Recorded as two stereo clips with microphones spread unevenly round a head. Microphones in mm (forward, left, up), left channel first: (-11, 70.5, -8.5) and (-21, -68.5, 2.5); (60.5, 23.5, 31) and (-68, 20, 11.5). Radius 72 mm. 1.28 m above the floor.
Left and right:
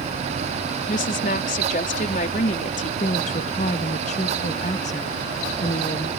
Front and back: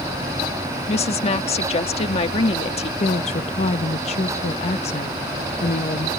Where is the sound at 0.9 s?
45° left.